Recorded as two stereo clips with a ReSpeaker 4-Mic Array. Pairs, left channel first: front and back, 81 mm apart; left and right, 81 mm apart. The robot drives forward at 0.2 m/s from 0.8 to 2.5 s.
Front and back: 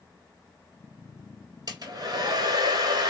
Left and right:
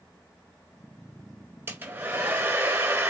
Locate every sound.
1.7 s a hair dryer: 155° right, 1.4 m